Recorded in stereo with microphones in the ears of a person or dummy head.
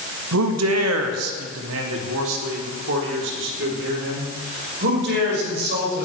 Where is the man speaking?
70° right (ahead or behind), 1.6 m; by 6.0 s 60° right (ahead or behind), 6 m.